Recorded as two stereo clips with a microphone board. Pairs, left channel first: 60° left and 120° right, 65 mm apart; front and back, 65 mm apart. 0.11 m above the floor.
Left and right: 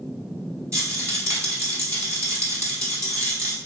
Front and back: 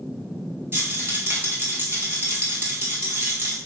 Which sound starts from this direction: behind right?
A rattle, at 0.7 s.